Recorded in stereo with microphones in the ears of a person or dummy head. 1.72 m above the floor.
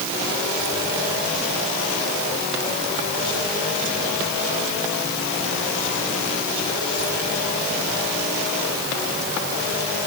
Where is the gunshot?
No gunshot in this recording.